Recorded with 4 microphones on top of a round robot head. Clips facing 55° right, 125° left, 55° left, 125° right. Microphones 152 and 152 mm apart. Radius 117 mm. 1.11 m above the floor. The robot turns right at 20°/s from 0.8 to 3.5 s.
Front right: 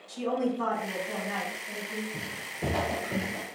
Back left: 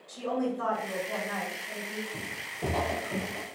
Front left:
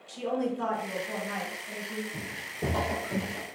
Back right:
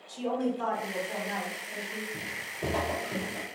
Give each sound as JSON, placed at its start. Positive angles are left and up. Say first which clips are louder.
{"t": 0.1, "sound": "a woman speaking", "louder": "front right 2 dB, even", "azimuth_deg": 20, "distance_m": 1.7}
{"t": 2.1, "sound": "footsteps", "louder": "front right 1 dB, front left 2 dB", "azimuth_deg": 45, "distance_m": 1.2}